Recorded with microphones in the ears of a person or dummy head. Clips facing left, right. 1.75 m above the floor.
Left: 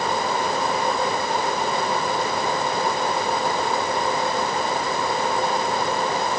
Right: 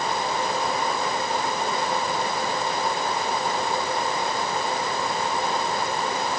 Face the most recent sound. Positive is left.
No sound to turn to.